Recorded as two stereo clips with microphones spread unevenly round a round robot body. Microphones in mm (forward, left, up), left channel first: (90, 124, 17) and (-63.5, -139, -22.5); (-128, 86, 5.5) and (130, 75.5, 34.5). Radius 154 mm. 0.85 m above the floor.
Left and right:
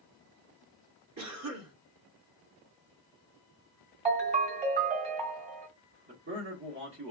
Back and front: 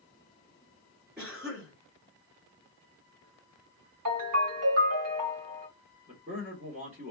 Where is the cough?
90° right, 2 m.